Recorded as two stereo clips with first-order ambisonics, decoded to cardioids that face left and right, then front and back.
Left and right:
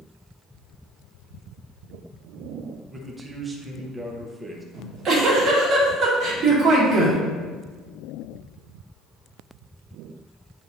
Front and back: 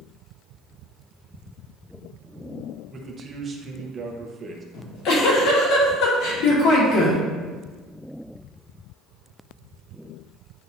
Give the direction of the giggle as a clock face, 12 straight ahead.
1 o'clock.